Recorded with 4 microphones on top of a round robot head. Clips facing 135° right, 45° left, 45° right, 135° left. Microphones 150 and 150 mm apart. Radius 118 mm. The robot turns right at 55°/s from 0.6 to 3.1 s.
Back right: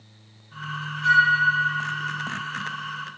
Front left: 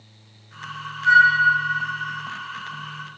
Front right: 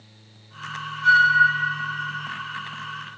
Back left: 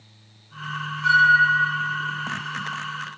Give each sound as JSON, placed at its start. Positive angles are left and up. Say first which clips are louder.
{"t": 1.0, "sound": "a flute", "louder": "front left 4 dB, front right 1 dB", "azimuth_deg": -145, "distance_m": 3.5}